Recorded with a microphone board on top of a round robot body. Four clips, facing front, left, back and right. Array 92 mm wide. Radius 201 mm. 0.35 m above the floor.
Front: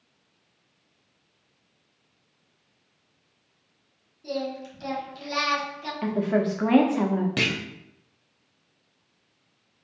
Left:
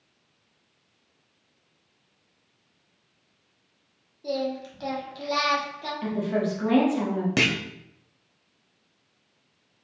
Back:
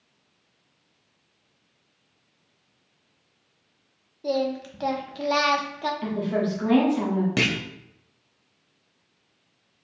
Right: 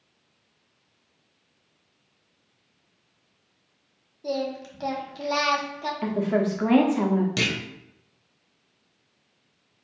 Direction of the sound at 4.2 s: 170° right.